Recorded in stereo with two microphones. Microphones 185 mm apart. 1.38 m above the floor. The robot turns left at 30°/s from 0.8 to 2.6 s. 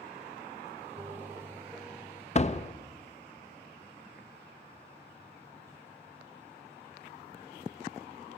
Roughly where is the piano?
Behind right.